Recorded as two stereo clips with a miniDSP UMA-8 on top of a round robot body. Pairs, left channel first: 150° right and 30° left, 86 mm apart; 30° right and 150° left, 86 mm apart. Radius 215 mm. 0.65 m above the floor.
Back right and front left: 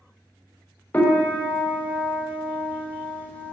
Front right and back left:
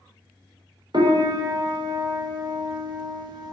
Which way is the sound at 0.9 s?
140° left.